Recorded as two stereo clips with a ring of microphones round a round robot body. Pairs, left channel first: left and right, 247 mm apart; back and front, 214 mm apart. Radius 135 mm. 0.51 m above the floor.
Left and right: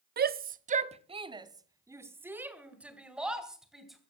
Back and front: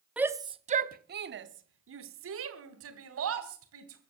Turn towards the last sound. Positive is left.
turn(degrees=0)